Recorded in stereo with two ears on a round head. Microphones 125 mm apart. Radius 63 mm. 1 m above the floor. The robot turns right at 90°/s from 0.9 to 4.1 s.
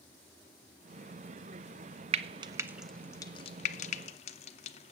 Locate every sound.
2.1 s frying: 45° right (ahead or behind), 0.8 m; by 4.9 s 50° left (ahead or behind), 0.8 m